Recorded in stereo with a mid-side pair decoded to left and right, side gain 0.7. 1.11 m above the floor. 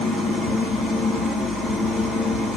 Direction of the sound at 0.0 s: 20° left.